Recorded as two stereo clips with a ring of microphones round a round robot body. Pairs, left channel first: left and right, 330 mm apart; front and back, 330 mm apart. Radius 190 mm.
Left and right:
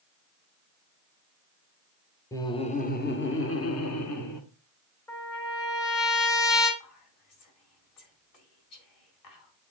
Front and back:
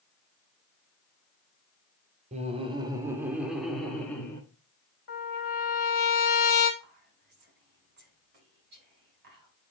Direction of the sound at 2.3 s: 155° left.